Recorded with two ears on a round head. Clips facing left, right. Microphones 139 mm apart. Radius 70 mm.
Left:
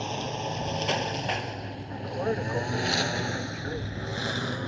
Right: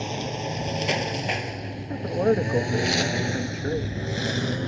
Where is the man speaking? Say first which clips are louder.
Right 8 dB; 45° right (ahead or behind).